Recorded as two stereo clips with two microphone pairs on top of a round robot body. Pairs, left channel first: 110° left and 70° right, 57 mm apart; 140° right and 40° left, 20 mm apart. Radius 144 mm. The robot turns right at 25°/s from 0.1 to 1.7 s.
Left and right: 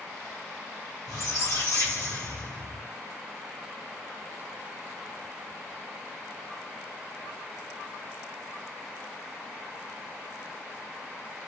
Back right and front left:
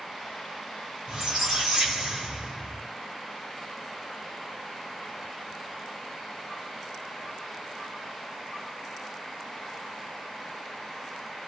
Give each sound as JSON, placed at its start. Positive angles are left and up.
{"t": 1.1, "sound": "a squeak", "azimuth_deg": 65, "distance_m": 2.5}